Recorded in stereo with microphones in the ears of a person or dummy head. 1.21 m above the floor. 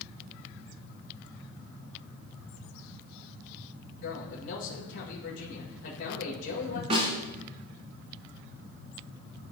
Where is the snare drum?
40° right (ahead or behind), 1.9 m.